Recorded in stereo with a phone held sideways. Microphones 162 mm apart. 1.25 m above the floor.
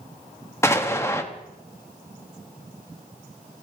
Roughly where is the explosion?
Centre.